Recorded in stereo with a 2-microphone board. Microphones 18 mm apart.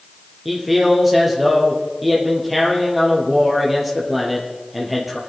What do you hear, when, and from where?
0.5 s a man speaking: 10° right (ahead or behind), 5.5 m